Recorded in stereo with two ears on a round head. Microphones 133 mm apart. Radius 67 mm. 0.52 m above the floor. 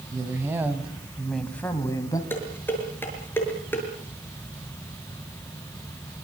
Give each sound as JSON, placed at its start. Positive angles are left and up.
{"t": 0.1, "sound": "a woman speaking", "side_deg": -25, "distance_m": 3.5}
{"t": 2.3, "sound": "dishes clattering", "side_deg": 15, "distance_m": 6.0}